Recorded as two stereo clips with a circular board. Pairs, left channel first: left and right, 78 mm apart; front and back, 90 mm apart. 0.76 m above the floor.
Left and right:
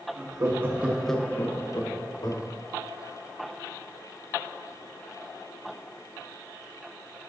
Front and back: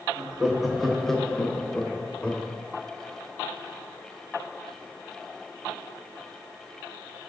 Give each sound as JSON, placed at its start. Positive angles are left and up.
{"t": 0.2, "sound": "laughter", "azimuth_deg": -95, "distance_m": 1.2}